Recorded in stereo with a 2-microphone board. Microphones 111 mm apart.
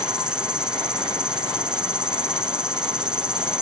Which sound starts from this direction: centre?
An insect, at 0.0 s.